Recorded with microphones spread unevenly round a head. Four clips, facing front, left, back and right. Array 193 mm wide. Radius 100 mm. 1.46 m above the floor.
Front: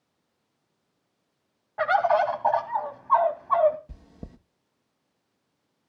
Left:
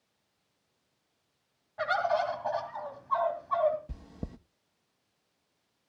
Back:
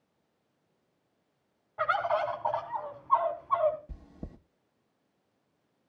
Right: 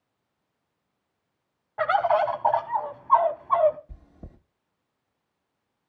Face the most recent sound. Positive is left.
turn(degrees=80)